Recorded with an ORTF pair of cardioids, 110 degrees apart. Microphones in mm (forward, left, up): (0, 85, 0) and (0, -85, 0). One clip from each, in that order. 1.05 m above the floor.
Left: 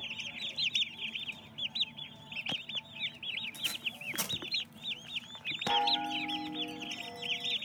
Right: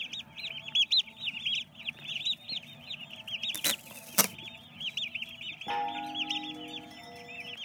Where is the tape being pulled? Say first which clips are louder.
Right 2 dB; 65° right, 0.8 m.